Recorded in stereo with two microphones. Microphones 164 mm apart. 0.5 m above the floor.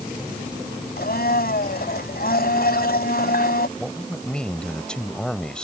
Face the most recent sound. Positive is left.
turn(degrees=5)  # may be behind; listen again after turning